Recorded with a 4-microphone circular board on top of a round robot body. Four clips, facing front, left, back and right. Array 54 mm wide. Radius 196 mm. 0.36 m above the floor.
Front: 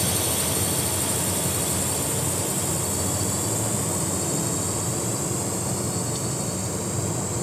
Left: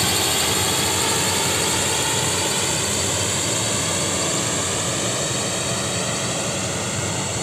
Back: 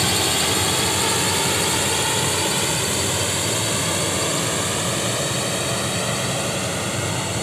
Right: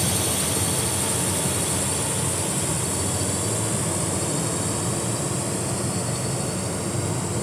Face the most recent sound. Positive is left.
turn(degrees=150)